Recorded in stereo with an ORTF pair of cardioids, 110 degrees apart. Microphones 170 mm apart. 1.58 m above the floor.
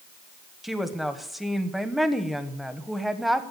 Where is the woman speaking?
Straight ahead, 1.2 m.